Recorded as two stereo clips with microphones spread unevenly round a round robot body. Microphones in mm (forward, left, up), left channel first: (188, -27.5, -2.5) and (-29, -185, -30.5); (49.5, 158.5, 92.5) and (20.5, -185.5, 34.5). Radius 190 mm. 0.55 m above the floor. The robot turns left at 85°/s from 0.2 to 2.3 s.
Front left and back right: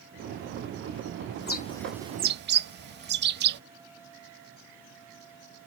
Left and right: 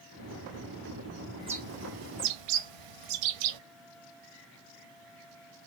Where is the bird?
10° right, 0.7 m; by 3.6 s 85° right, 0.7 m.